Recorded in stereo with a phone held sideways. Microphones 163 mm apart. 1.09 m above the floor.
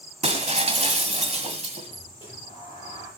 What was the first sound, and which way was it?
Breaking glass, 45° right (ahead or behind).